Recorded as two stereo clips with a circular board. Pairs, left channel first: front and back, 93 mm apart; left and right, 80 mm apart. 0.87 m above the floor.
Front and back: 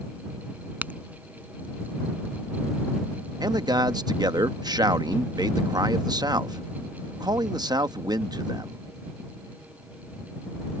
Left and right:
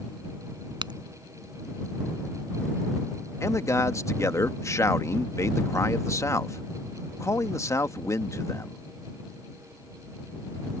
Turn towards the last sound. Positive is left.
turn(degrees=140)